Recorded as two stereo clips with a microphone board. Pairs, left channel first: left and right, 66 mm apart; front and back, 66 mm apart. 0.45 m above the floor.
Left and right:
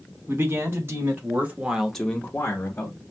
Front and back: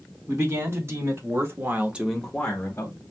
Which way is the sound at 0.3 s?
135° right.